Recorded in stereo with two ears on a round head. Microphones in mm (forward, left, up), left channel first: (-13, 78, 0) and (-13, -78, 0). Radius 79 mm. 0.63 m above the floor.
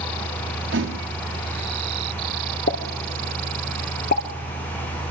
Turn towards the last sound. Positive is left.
turn(degrees=50)  # may be behind; listen again after turning